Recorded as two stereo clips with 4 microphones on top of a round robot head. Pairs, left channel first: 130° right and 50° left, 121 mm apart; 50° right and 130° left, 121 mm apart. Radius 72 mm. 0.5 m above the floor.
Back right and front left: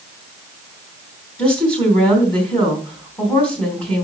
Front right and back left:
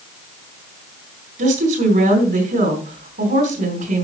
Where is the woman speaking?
150° left, 3.5 m.